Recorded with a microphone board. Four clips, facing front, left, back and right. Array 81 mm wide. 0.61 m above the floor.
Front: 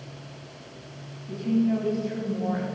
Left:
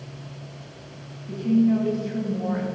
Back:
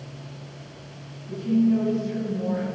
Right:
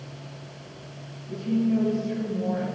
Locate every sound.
1.3 s a woman speaking: 60° left, 5 m